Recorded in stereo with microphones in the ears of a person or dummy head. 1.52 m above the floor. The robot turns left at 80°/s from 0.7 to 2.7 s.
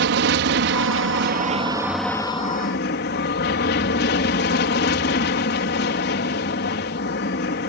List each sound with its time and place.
0.0 s an aircraft: 75° right; by 7.7 s 125° left